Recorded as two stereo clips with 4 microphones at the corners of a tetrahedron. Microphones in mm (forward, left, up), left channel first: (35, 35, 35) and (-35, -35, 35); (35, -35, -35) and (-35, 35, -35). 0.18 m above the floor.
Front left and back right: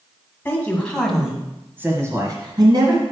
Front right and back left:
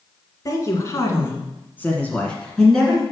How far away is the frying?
No frying in this recording.